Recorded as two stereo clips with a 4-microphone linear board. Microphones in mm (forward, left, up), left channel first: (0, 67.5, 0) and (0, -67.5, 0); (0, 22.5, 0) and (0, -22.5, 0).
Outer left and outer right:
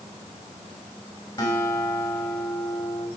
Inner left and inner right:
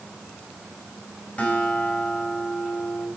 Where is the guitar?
30° left (ahead or behind), 4.5 m.